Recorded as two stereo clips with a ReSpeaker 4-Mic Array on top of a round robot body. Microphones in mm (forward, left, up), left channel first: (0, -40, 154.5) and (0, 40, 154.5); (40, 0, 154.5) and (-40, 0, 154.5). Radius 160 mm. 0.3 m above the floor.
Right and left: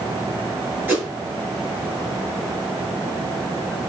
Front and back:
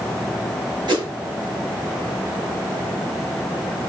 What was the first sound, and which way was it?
A whoosh, 155° left.